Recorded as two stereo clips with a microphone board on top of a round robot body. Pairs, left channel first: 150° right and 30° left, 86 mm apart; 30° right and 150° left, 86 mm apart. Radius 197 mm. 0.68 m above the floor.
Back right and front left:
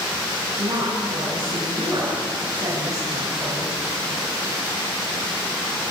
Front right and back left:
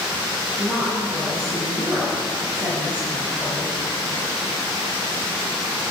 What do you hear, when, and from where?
0.6 s a woman speaking: 75° left, 8.5 m; by 3.7 s 80° left, 6 m